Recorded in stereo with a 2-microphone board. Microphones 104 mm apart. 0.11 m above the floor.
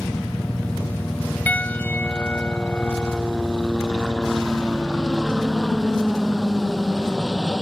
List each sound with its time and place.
0.0 s a helicopter: 15° left (ahead or behind); by 7.6 s centre (ahead or behind)
1.5 s a piano: 15° left (ahead or behind)